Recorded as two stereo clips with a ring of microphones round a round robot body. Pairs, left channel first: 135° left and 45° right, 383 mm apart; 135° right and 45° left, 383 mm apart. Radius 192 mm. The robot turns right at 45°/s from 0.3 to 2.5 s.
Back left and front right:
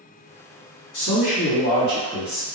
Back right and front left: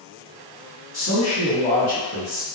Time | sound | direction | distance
0.9 | a man speaking | 170° left | 1.9 m